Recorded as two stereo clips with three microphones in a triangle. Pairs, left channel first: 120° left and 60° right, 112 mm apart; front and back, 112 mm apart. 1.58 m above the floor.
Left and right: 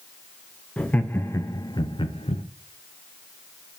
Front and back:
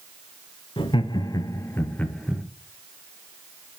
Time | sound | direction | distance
0.8 | laughter | 40° left | 1.1 m